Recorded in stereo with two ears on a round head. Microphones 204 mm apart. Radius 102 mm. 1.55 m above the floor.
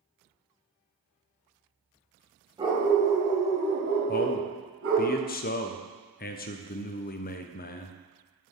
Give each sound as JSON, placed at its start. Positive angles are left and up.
{"t": 2.6, "sound": "a dog barking", "side_deg": -20, "distance_m": 3.0}
{"t": 4.1, "sound": "a man speaking", "side_deg": 40, "distance_m": 0.6}